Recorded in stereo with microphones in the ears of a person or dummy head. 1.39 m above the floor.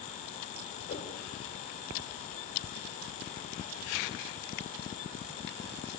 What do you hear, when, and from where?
0.9 s a whoosh: 55° left (ahead or behind), 4 m